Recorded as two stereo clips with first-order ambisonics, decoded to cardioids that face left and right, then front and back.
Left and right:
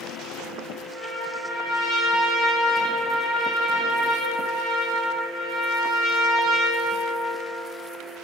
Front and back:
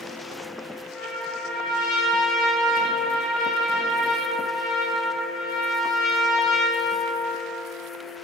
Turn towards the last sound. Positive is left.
turn(degrees=-45)